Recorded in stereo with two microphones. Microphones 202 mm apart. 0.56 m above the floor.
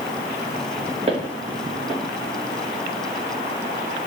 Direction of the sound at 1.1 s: 30° right (ahead or behind).